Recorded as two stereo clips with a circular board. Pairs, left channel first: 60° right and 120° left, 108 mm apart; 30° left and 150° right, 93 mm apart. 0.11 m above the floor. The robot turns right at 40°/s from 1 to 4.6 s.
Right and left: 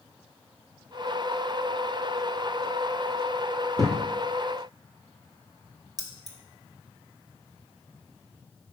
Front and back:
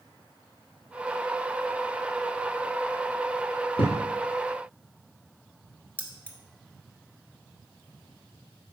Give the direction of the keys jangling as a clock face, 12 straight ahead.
9 o'clock.